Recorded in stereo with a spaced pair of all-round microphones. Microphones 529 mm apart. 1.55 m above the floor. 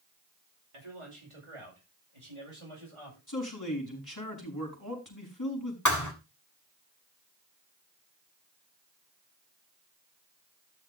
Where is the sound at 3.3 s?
35° left (ahead or behind), 5 m.